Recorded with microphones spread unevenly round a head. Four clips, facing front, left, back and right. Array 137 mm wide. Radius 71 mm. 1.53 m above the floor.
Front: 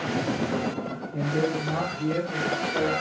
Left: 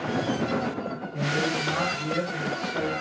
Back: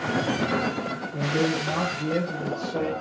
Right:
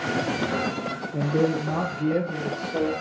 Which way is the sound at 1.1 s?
95° right.